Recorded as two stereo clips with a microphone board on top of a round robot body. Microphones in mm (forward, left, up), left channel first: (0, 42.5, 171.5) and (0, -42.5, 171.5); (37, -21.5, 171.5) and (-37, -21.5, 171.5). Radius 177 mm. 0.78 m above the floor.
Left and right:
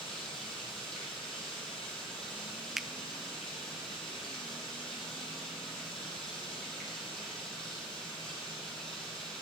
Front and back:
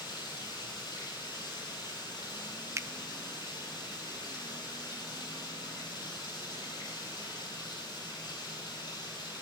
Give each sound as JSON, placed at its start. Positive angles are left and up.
{"t": 0.0, "sound": "running water", "azimuth_deg": 10, "distance_m": 7.5}
{"t": 2.8, "sound": "a finger snap", "azimuth_deg": -175, "distance_m": 0.6}